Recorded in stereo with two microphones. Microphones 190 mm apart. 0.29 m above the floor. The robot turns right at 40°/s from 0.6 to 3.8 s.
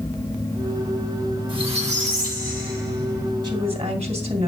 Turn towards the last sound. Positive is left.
turn(degrees=-35)  # may be behind; listen again after turning